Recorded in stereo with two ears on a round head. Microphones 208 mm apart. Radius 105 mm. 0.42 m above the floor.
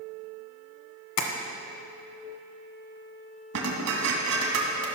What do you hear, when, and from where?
1.2 s tapping: 85° left, 1.3 m
3.5 s dishes clattering: 70° right (ahead or behind), 1.9 m